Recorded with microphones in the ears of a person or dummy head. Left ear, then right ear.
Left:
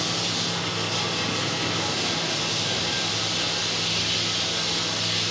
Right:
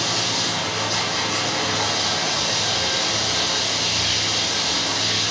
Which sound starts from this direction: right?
Running water, at 0.0 s.